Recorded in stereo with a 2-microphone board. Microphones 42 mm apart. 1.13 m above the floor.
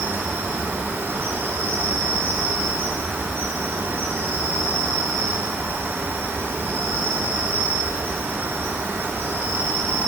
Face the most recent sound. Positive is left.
turn(degrees=-85)